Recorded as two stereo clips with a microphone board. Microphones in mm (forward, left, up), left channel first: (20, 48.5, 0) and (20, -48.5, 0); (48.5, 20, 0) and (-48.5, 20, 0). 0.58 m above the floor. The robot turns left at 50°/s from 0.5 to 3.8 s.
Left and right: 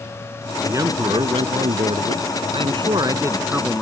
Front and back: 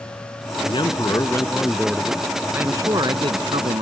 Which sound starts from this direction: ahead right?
A man speaking, at 0.7 s.